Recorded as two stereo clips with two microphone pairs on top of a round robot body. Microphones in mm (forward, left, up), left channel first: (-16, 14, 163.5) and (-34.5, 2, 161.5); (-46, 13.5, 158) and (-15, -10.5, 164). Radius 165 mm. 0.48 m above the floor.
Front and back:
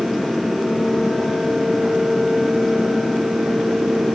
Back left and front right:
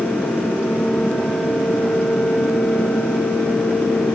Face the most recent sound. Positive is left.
No sound to turn to.